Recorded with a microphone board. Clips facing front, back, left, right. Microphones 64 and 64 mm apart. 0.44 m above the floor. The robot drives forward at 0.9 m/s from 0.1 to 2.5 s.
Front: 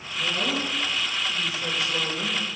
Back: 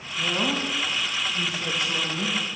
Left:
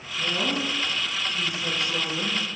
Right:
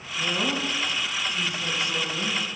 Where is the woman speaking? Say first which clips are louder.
Back 1 dB, even; 170° right, 3 m; by 2.4 s 175° right, 5 m.